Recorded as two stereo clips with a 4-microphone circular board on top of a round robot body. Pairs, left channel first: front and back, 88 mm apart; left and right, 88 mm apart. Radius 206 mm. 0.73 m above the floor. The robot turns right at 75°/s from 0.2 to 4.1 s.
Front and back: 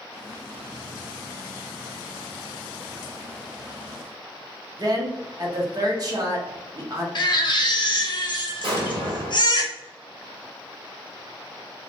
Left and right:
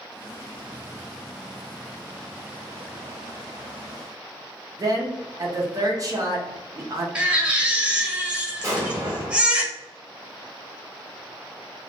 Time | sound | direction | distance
4.8 | a woman speaking | 135° right | 0.8 m
7.2 | a baby crying | 15° right | 0.9 m
8.6 | an explosion | 155° right | 1.0 m